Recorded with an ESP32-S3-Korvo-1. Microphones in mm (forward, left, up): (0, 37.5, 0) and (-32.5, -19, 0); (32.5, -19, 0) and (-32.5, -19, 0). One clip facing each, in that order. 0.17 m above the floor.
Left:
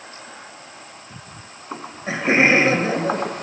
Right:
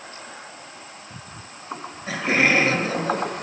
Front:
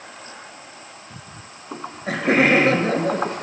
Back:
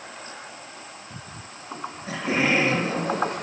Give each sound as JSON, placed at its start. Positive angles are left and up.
{"t": 1.7, "sound": "laughter", "azimuth_deg": 0, "distance_m": 3.5}